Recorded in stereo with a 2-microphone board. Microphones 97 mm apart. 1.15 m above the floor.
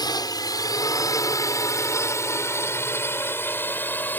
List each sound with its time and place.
0.0 s a drone: 40° left (ahead or behind); by 4.2 s 20° left (ahead or behind)